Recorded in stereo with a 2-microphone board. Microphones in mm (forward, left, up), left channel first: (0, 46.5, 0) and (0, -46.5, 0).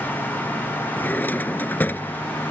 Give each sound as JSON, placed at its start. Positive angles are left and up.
{"t": 1.0, "sound": "a drawer", "side_deg": 20}